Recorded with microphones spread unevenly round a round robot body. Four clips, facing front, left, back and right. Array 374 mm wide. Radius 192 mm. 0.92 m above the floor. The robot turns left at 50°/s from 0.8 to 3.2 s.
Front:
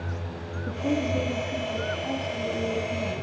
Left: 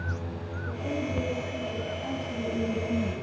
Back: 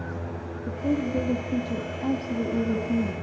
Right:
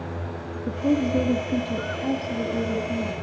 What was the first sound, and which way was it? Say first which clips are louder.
A woman speaking: right 10 dB, even; 80° right.